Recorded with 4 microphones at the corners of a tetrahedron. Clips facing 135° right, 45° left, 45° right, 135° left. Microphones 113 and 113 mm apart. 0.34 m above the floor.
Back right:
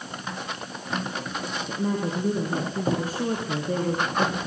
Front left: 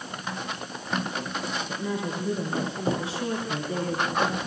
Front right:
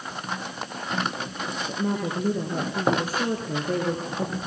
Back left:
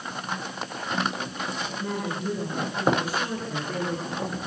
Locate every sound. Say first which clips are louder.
1.7 s a woman speaking: back right 7 dB, front right 3 dB; 90° right, 5.5 m